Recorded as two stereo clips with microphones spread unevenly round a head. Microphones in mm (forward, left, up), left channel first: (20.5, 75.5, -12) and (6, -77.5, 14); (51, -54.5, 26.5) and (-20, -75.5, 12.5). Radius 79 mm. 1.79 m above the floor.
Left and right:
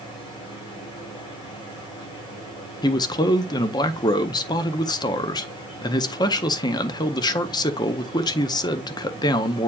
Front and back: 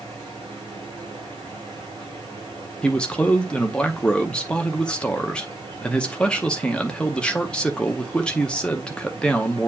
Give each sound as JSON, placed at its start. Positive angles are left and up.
{"t": 0.0, "sound": "a machine running", "azimuth_deg": 150, "distance_m": 5.5}
{"t": 2.8, "sound": "a man speaking", "azimuth_deg": 35, "distance_m": 0.6}